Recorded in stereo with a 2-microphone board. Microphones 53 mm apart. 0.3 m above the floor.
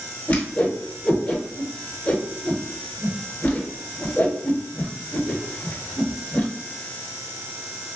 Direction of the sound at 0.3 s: 25° left (ahead or behind).